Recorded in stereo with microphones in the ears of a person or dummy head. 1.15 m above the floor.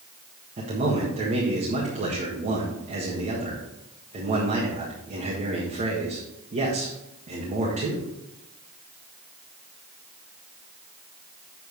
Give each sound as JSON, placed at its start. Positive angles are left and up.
{"t": 0.6, "sound": "a man speaking", "side_deg": -40, "distance_m": 1.6}